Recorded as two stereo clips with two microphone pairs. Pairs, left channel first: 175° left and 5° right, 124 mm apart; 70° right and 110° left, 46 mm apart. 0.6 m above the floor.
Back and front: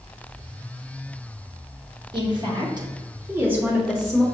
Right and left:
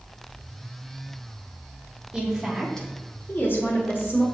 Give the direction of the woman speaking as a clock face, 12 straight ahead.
11 o'clock.